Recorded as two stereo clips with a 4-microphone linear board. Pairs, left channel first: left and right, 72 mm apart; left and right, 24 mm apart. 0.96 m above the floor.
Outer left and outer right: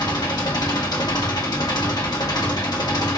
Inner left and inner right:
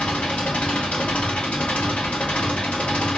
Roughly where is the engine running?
Left.